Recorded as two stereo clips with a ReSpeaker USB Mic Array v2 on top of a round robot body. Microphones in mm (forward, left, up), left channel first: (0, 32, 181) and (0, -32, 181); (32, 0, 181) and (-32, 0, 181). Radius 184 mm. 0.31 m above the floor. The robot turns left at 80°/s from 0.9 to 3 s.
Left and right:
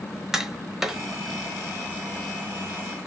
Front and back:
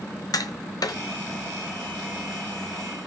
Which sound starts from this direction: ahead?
Tapping, at 0.3 s.